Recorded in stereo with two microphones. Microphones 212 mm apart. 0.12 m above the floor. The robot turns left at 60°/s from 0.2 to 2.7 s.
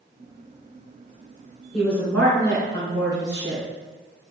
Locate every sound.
1.7 s a woman speaking: centre (ahead or behind), 1.5 m; by 3.6 s 15° left (ahead or behind), 1.5 m